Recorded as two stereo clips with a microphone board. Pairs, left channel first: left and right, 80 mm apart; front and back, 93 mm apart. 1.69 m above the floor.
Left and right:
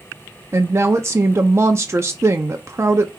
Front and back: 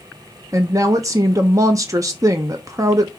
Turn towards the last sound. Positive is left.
turn(degrees=-135)